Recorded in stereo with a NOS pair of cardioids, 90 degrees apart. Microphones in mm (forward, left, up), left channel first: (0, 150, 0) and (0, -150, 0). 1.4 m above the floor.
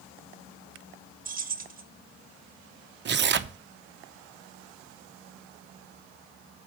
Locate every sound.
1.2 s keys jangling: 30° right, 1.2 m
3.0 s tearing paper: 40° right, 0.7 m